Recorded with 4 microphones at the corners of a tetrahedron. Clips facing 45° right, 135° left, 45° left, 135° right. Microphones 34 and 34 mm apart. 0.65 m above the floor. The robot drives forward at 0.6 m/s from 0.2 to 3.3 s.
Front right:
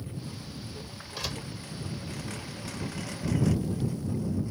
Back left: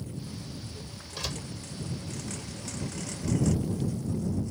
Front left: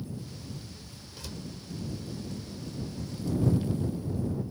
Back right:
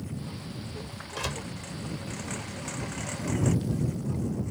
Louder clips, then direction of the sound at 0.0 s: Even, back right 3 dB; 115° right.